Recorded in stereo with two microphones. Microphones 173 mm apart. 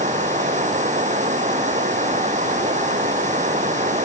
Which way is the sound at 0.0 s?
40° right (ahead or behind).